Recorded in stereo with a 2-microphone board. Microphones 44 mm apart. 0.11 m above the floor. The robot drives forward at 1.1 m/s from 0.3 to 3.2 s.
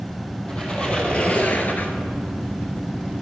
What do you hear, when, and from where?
0.5 s a squeak: 20° left (ahead or behind), 1.7 m; by 1.9 s 45° left (ahead or behind), 0.7 m